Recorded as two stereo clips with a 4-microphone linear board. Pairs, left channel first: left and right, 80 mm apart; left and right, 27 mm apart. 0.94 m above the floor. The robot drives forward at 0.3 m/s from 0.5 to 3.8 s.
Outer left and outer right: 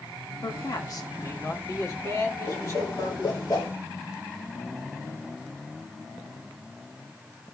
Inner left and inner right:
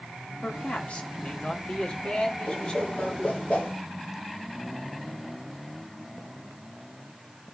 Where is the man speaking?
55° left (ahead or behind), 1.8 m; by 3.5 s 40° left (ahead or behind), 2.5 m.